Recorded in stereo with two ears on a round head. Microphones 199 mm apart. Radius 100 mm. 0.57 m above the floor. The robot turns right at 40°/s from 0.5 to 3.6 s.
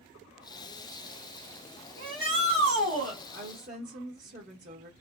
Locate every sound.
2.0 s a shout: 140° right, 1.7 m; by 3.2 s 90° right, 1.7 m
3.3 s a woman speaking: 30° right (ahead or behind), 0.8 m; by 4.9 s 35° right (ahead or behind), 0.8 m